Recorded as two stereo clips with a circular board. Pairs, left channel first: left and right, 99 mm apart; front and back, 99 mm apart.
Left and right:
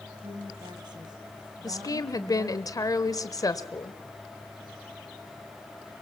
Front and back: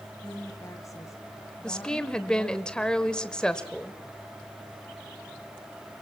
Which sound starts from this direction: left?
A woman speaking, at 1.6 s.